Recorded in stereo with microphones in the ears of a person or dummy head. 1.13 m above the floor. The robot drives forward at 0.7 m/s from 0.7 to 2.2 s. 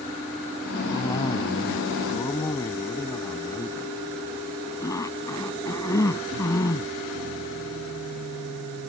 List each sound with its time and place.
0.9 s a cough: 20° left (ahead or behind)